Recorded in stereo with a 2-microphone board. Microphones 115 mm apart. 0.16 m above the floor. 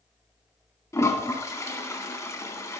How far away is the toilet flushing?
About 0.8 m.